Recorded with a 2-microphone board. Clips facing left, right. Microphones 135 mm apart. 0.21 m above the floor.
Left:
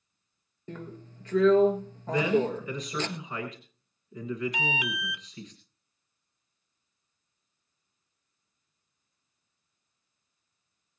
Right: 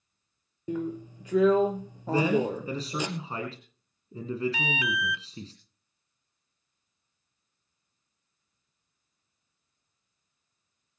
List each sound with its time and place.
0.7 s a drill: 10° right (ahead or behind), 1.7 m
2.1 s a man speaking: 30° right (ahead or behind), 2.5 m
4.5 s an alarm: 15° left (ahead or behind), 1.1 m